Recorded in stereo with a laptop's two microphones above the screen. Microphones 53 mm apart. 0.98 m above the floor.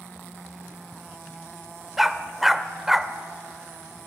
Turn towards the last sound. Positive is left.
turn(degrees=-5)  # may be behind; listen again after turning